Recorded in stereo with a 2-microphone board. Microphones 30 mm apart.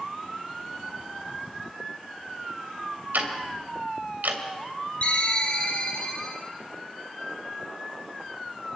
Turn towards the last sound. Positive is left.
turn(degrees=45)  # may be behind; listen again after turning